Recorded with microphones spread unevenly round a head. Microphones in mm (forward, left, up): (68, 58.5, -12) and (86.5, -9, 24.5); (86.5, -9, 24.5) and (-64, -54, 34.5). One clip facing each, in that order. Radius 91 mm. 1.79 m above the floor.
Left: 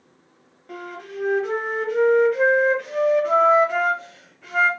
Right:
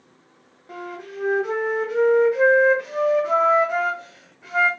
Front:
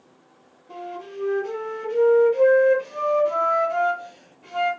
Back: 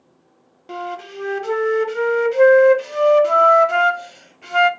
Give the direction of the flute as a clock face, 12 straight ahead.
5 o'clock.